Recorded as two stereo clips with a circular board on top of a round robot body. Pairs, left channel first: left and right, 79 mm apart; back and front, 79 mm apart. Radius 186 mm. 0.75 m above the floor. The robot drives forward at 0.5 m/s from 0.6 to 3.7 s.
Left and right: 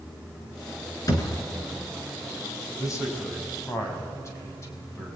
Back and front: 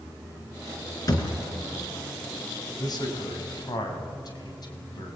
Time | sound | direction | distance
1.1 | a thud | 135° left | 4 m
2.8 | a man speaking | 140° left | 5 m